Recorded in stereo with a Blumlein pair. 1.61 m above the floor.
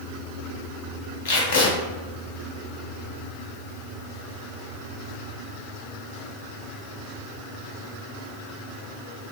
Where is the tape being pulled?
55° left, 1.1 m.